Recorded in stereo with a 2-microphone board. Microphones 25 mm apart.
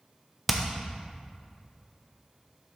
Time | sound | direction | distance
0.5 | hammering | 5° right (ahead or behind) | 0.8 m